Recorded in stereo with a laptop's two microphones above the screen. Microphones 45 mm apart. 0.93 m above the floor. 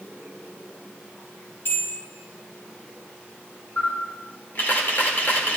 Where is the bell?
55° left (ahead or behind), 3 m.